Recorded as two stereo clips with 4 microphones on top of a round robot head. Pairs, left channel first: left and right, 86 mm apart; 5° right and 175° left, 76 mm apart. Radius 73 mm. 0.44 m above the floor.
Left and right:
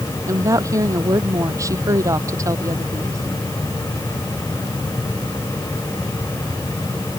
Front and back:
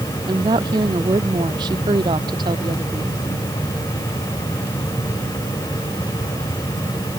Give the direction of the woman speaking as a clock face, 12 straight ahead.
5 o'clock.